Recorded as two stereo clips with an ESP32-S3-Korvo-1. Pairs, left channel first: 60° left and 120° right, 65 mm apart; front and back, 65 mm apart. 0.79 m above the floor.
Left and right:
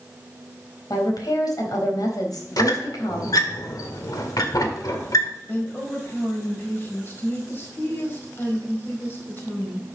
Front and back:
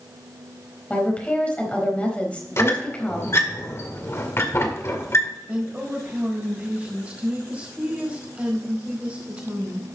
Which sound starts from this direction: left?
A woman speaking, at 0.9 s.